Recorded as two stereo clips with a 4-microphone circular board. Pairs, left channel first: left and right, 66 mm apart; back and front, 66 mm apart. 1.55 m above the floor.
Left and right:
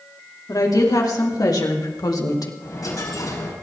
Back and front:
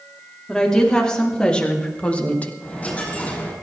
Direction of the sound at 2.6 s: 110° left.